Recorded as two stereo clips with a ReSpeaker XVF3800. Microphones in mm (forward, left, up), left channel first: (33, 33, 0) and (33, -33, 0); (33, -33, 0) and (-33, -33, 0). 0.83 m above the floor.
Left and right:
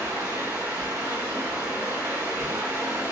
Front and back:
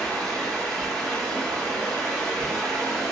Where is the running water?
80° right, 1.5 m.